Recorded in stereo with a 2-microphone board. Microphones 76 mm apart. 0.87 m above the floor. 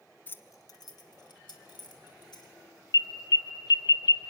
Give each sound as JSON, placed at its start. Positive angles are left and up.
{"t": 0.3, "sound": "keys jangling", "side_deg": 25, "distance_m": 0.7}
{"t": 2.9, "sound": "an alarm", "side_deg": 65, "distance_m": 0.6}